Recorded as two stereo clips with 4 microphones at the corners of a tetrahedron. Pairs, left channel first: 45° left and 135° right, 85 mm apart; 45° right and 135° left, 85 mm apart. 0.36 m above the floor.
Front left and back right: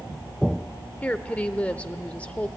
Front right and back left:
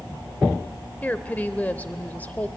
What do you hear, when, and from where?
1.0 s a woman speaking: 5° right, 0.8 m